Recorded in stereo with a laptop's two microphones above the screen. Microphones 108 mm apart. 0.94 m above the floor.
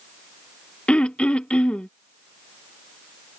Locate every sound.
0.9 s throat clearing: 10° left (ahead or behind)